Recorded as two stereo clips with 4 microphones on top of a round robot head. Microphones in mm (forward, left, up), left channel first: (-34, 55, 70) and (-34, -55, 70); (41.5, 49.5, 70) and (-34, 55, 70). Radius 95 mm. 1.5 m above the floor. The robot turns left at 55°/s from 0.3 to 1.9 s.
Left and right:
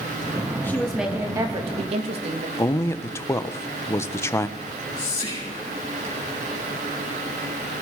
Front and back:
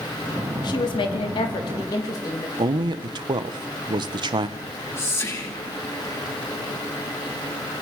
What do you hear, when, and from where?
0.6 s a woman speaking: 15° left, 2.5 m; by 2.5 s 55° right, 2.5 m
2.6 s a man speaking: 155° left, 1.3 m
4.6 s whispering: 30° left, 8 m